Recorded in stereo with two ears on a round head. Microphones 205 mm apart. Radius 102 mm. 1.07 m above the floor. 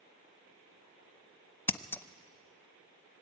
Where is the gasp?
No gasp in this recording.